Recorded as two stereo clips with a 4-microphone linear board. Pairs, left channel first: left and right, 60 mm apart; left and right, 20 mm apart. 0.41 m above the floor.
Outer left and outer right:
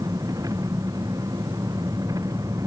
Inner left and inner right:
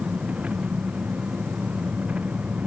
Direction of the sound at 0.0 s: 85° right.